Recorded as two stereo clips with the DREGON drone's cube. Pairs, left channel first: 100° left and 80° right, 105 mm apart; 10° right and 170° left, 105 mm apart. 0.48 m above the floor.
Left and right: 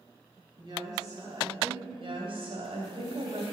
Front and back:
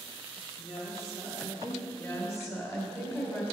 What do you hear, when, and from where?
0.6 s a woman speaking: 35° right, 3 m; by 1.8 s 20° right, 3.5 m
1.9 s a woman speaking: 75° right, 2.5 m